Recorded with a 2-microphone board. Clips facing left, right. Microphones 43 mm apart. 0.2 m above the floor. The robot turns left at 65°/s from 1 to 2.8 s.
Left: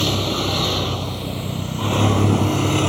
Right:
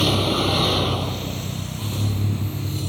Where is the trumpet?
I don't hear a trumpet.